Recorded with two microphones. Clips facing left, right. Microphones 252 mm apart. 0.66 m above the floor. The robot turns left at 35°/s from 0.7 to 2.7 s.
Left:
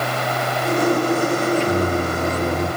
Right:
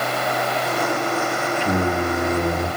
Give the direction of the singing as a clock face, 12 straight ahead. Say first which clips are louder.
Left 2 dB; 4 o'clock.